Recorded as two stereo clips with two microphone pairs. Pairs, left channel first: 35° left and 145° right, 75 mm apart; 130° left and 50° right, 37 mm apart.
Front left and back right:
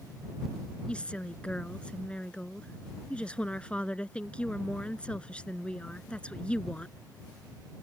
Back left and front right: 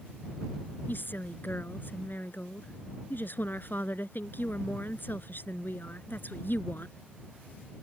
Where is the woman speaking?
110° left.